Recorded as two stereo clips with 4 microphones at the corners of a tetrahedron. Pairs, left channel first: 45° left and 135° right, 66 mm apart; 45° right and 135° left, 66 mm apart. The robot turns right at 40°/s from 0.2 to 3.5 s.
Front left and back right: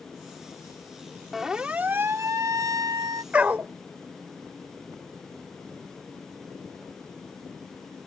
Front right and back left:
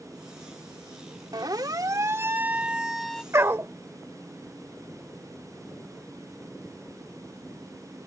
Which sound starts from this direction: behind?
A dog barking, at 3.3 s.